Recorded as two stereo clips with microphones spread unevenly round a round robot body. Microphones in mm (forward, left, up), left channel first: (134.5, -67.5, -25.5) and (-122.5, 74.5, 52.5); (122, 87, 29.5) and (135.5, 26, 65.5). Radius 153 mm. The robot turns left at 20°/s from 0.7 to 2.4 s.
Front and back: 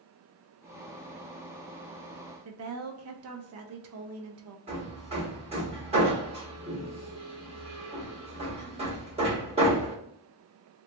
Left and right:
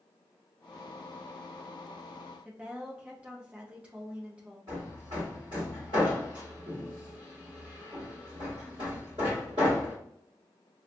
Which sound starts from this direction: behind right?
Hammering, at 4.7 s.